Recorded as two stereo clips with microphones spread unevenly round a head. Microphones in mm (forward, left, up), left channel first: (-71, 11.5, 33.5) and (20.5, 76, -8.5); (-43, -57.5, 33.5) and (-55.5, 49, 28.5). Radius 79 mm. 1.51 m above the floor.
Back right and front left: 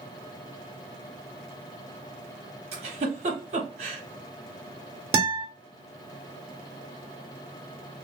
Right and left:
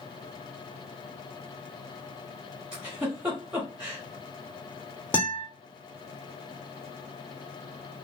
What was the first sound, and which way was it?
A giggle, 15° left.